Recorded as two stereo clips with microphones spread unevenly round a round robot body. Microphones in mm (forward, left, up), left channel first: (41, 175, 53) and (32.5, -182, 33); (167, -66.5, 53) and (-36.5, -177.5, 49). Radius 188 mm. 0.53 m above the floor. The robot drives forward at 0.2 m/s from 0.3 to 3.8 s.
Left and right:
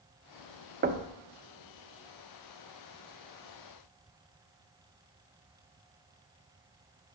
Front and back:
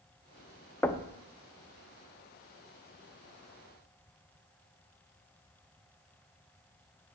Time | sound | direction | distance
0.8 | knocking | 50° right | 0.7 m